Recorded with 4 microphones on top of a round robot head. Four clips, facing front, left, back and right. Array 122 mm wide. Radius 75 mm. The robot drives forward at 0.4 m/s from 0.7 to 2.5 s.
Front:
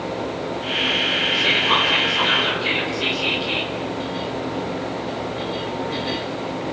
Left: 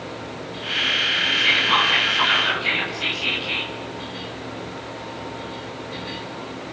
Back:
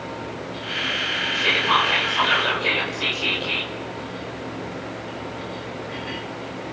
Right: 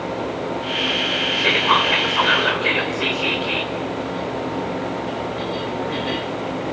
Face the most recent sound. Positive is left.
turn(degrees=-115)